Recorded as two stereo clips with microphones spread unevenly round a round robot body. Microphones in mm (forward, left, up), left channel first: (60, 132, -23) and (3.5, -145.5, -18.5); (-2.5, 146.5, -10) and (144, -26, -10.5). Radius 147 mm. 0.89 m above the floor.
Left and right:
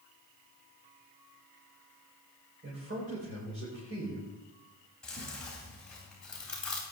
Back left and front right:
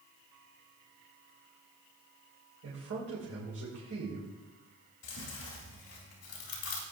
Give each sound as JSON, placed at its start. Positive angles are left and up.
{"t": 2.6, "sound": "a man speaking", "azimuth_deg": -50, "distance_m": 3.0}
{"t": 5.0, "sound": "chewing", "azimuth_deg": 165, "distance_m": 3.0}